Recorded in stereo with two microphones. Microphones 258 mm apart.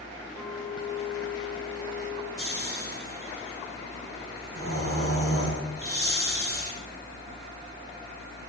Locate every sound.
0.4 s a clink: 65° left (ahead or behind), 4 m
2.4 s snoring: 60° left (ahead or behind), 7.5 m